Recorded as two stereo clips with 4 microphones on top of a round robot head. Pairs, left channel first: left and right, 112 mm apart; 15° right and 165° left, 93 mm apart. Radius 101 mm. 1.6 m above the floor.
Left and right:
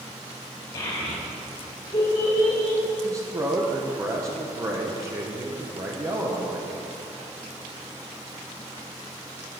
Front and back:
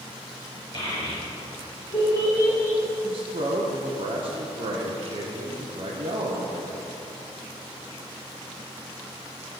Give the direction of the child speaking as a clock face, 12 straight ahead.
11 o'clock.